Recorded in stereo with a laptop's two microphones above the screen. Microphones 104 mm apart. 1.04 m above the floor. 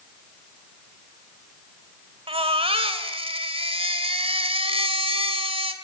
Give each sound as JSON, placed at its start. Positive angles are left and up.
{"t": 2.3, "sound": "a baby crying", "side_deg": -70, "distance_m": 2.5}